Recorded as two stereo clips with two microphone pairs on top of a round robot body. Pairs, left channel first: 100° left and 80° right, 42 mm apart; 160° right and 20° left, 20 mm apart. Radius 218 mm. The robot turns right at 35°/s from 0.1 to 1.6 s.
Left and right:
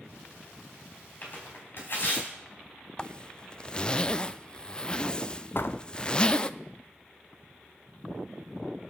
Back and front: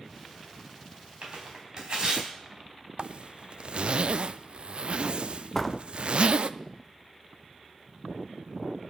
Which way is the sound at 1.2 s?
50° left.